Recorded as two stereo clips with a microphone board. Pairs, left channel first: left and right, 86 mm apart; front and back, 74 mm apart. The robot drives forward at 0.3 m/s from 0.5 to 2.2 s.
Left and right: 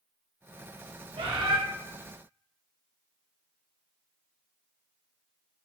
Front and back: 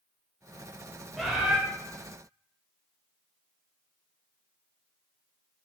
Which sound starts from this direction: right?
A bird, at 1.2 s.